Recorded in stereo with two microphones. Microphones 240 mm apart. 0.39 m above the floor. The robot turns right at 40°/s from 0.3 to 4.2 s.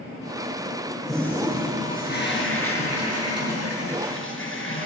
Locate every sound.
1.1 s a toilet flushing: straight ahead, 5 m; by 4.9 s 125° left, 5 m